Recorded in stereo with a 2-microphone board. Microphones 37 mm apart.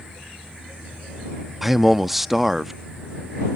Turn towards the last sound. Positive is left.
turn(degrees=-10)  # may be behind; listen again after turning